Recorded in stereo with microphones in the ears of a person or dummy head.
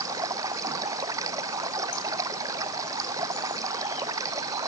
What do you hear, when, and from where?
0.0 s running water: 20° right (ahead or behind)